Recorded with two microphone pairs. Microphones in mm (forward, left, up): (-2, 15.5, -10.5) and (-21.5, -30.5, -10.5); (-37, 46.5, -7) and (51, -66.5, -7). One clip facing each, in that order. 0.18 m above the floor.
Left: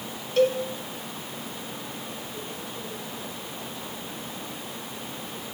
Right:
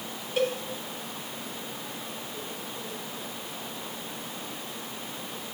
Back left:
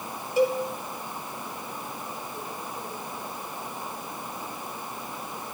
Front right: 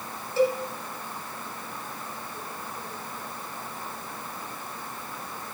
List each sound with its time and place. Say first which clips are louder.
0.4 s a cowbell: left 6 dB, even; 175° right, 1.1 m